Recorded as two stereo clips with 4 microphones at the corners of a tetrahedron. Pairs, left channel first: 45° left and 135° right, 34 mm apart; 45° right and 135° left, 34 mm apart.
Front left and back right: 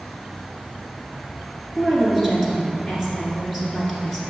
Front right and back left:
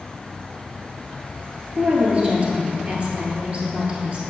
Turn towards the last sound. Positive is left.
turn(degrees=140)